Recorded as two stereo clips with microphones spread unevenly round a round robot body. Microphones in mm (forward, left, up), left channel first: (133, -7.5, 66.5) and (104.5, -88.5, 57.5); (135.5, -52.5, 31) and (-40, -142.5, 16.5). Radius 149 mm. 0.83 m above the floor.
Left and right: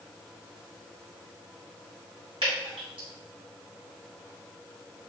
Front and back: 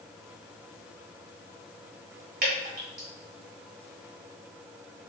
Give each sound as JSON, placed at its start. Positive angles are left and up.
{"t": 2.4, "sound": "dripping", "azimuth_deg": -115, "distance_m": 1.9}